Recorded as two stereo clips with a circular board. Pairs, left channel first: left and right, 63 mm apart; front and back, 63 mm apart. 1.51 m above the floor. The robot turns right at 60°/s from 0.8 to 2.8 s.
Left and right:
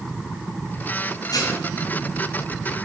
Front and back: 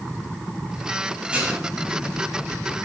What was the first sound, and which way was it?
Dishes clattering, 105° left.